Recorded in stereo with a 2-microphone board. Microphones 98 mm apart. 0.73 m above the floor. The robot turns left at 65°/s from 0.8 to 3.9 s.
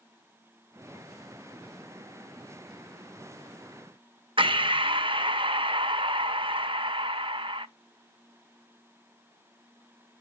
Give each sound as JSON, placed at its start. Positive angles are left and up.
{"t": 4.4, "sound": "breathing", "side_deg": -60, "distance_m": 0.5}